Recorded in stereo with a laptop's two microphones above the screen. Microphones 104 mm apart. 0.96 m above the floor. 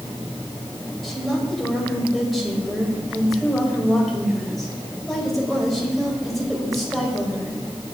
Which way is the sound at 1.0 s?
Centre (ahead or behind).